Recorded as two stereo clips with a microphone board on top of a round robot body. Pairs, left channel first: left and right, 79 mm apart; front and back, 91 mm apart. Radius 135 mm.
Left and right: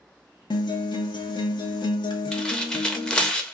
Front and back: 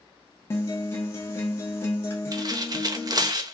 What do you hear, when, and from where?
0.5 s a guitar: 65° left, 0.5 m
2.3 s tearing paper: 165° left, 0.8 m